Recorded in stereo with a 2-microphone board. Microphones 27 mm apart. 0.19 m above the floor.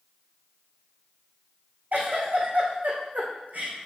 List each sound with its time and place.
1.9 s a giggle: 80° right, 2.5 m